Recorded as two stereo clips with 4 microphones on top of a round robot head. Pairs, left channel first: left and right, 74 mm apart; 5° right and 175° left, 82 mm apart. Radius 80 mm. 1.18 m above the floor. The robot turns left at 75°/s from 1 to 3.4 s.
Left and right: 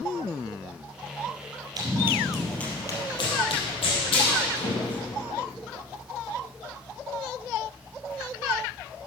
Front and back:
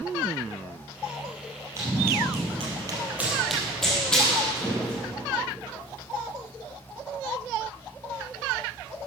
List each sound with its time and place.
1.8 s running footsteps: 115° right, 2 m; by 5.1 s 70° left, 3.5 m